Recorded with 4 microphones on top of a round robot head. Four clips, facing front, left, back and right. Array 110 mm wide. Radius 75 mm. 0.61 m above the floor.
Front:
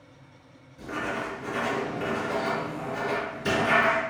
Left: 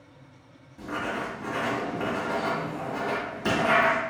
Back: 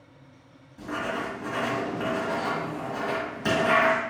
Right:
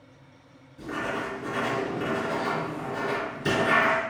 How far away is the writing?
About 1.8 m.